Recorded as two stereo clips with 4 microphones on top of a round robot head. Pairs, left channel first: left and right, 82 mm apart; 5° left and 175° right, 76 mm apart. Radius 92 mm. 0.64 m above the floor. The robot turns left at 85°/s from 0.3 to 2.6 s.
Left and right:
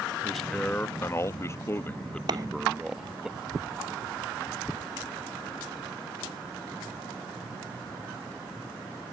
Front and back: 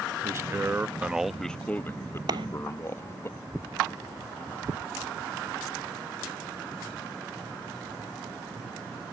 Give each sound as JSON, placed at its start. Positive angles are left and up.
{"t": 0.2, "sound": "a man speaking", "azimuth_deg": 180}
{"t": 2.3, "sound": "a clap", "azimuth_deg": -135}